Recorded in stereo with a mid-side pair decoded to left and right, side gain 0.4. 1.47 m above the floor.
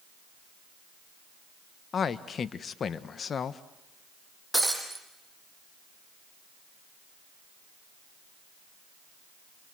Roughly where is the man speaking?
Ahead left.